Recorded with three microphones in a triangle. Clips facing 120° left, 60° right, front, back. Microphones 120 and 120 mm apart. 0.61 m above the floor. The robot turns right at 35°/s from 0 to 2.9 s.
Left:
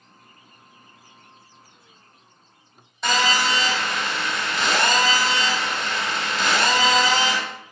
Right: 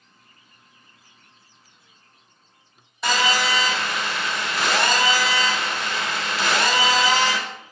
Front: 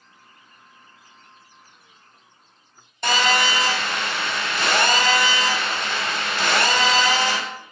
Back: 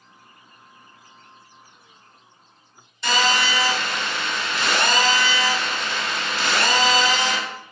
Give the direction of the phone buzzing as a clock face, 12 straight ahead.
11 o'clock.